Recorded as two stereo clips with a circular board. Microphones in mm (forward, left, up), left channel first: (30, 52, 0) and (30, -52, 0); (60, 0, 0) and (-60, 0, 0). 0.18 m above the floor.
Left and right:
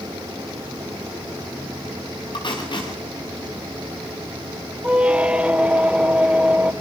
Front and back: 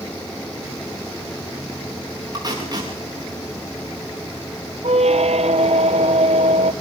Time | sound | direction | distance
2.3 | tape being pulled | 130° left | 8 m
4.8 | a squeak | 165° right | 1.2 m